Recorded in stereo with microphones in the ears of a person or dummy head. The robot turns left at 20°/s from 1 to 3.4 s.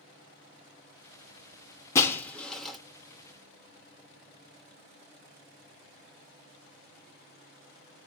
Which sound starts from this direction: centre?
Breaking glass, at 1.9 s.